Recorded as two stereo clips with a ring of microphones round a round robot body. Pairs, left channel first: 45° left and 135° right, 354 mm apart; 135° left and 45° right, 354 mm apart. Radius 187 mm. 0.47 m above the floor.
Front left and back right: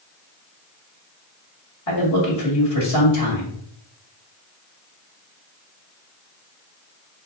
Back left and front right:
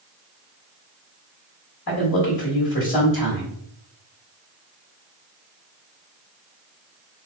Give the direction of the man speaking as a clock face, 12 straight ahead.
9 o'clock.